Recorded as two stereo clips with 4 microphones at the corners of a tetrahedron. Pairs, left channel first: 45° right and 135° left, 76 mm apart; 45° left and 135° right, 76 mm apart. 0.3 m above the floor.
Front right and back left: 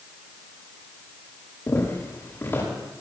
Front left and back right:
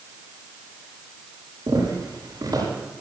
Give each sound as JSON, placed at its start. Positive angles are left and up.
{"t": 1.7, "sound": "footsteps", "azimuth_deg": -100, "distance_m": 9.0}